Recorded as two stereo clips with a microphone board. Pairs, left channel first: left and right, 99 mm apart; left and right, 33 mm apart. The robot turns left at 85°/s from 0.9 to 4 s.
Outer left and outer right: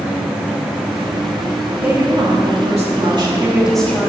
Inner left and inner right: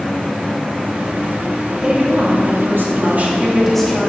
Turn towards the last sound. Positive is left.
turn(degrees=155)